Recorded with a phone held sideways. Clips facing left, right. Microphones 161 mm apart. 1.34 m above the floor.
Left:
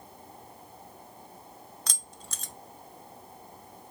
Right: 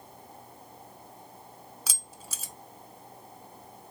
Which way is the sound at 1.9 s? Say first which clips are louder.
Even; 5° right (ahead or behind).